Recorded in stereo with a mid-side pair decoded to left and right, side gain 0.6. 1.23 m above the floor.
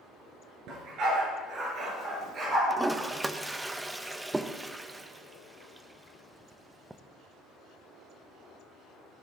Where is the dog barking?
65° right, 4.5 m; by 2.6 s 35° right, 5 m.